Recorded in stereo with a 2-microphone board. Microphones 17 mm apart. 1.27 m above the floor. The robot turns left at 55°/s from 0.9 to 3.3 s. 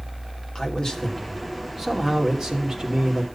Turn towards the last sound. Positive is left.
turn(degrees=-95)